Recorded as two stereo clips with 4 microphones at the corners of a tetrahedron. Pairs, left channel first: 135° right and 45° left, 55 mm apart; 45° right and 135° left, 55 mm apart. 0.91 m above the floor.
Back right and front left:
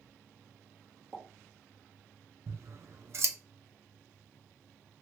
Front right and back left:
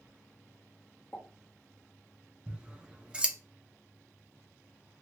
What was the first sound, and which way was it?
A pop, straight ahead.